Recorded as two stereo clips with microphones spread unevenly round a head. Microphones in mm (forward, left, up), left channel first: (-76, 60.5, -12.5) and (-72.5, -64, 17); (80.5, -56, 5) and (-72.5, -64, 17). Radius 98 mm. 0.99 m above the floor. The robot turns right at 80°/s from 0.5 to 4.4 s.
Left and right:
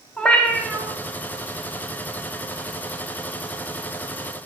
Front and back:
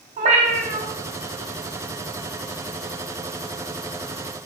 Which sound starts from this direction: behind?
A cat meowing, at 0.2 s.